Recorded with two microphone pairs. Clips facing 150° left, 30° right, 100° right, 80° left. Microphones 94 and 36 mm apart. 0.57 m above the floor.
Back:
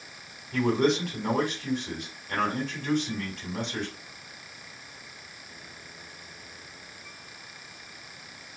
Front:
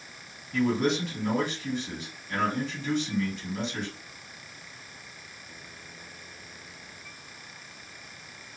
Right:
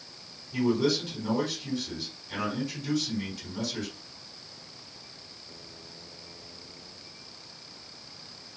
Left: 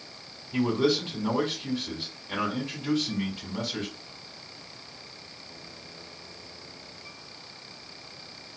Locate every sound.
0.5 s a man speaking: 125° left, 3.5 m